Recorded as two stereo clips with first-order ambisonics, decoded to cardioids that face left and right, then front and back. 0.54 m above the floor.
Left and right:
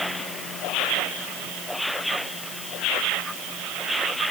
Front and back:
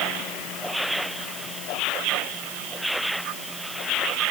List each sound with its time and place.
Only background noise.